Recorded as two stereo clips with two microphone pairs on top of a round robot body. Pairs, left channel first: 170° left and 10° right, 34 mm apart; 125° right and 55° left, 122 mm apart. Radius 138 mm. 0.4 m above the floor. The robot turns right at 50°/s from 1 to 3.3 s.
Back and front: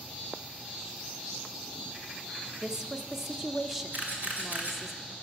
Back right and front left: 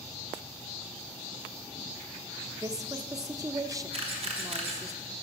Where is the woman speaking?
30° left, 1.0 m; by 4.9 s 65° left, 1.0 m.